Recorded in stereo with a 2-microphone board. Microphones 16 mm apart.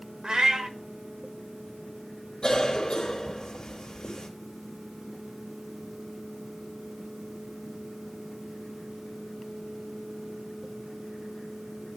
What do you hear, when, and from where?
0.2 s a cat meowing: 75° right (ahead or behind), 0.9 m
2.4 s a cough: 70° left (ahead or behind), 2.5 m